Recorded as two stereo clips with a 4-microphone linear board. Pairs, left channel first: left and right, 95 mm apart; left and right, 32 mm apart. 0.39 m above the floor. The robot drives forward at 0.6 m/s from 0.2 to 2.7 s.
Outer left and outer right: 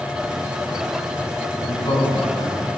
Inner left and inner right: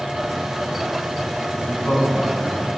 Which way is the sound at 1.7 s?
60° left (ahead or behind).